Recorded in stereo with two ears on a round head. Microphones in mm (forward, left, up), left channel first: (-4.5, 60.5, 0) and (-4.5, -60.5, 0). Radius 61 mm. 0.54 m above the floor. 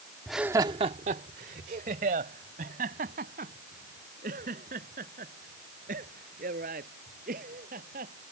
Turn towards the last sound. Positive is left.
turn(degrees=-65)  # may be behind; listen again after turning